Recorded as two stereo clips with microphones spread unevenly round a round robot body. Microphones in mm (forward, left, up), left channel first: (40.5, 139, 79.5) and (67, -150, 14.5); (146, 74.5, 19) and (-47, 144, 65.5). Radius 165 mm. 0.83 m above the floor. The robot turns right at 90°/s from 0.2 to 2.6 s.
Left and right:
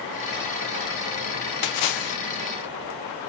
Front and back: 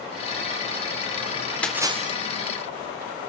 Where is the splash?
65° left, 0.6 m; by 2.2 s 115° left, 0.6 m.